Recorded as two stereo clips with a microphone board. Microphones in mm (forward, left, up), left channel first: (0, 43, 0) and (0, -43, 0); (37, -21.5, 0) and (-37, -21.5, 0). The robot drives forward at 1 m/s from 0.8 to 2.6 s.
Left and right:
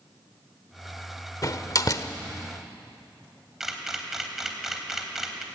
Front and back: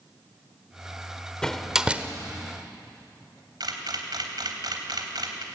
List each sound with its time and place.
1.4 s a door slam: 75° left, 1.1 m; by 2.1 s 120° left, 1.2 m
3.6 s a camera shutter: 175° right, 3 m